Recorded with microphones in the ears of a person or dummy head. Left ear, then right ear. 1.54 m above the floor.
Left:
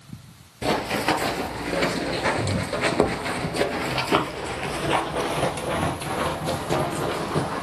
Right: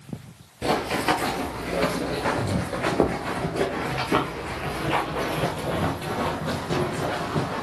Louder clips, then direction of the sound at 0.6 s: Even; 5° left (ahead or behind).